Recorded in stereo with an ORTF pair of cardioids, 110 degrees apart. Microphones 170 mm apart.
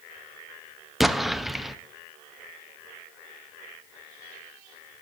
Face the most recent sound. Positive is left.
turn(degrees=0)